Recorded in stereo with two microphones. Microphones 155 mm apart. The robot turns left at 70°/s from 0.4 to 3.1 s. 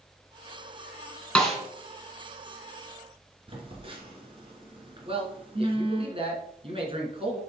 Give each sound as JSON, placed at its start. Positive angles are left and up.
{"t": 1.4, "sound": "a snare drum", "side_deg": 5, "distance_m": 3.0}
{"t": 3.5, "sound": "a phone buzzing", "side_deg": -35, "distance_m": 2.5}
{"t": 5.0, "sound": "a man speaking", "side_deg": -35, "distance_m": 3.0}